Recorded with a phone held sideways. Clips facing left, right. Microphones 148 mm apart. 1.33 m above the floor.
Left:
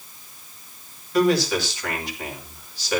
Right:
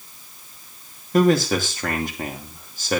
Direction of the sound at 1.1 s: 45° right (ahead or behind).